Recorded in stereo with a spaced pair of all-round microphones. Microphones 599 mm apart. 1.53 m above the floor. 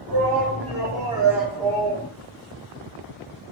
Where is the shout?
45° right (ahead or behind), 1.6 m; by 2.1 s 25° left (ahead or behind), 0.6 m.